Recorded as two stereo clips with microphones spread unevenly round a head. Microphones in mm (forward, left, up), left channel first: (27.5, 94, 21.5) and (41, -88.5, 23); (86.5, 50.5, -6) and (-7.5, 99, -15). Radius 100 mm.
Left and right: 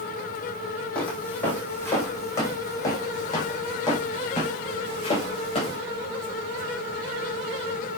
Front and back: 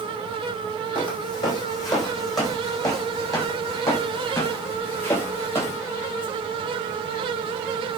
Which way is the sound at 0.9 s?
10° left.